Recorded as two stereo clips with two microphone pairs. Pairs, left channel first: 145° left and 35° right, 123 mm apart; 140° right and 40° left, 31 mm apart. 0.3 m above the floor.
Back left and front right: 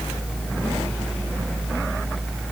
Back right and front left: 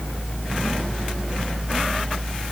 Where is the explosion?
I don't hear an explosion.